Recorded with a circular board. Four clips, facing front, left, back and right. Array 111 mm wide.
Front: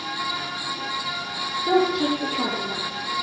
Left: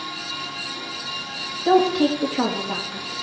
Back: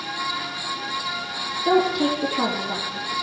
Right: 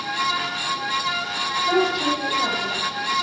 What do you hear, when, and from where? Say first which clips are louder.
1.6 s a woman speaking: left 5 dB, back 1 dB; 125° left, 3 m